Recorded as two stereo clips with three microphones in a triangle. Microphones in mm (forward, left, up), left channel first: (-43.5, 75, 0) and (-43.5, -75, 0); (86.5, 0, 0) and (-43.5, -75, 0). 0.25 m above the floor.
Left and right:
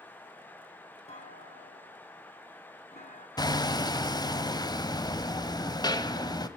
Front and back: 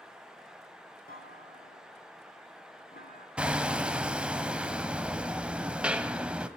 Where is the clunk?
50° left, 3.5 m.